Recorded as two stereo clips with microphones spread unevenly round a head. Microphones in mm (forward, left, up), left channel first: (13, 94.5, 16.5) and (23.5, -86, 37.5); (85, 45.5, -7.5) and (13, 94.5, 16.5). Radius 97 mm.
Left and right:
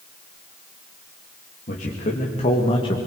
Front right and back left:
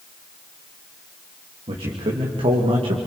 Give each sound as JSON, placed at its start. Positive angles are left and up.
{"t": 1.7, "sound": "a man speaking", "azimuth_deg": 145, "distance_m": 3.0}